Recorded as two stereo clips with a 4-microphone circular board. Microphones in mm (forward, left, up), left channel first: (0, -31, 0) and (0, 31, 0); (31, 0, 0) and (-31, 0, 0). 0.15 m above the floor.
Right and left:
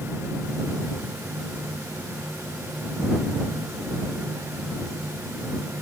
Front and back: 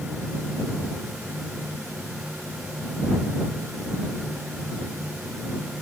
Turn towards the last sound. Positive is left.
No sound to turn to.